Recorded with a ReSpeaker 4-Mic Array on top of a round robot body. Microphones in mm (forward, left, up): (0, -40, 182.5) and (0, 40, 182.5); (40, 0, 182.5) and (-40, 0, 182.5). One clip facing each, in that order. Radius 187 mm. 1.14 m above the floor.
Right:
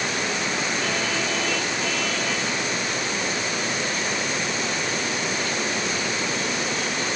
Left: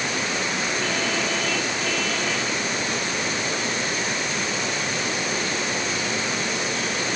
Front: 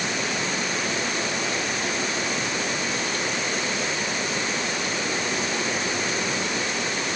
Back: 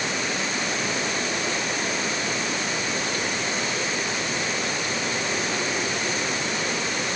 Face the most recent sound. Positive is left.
No sound to turn to.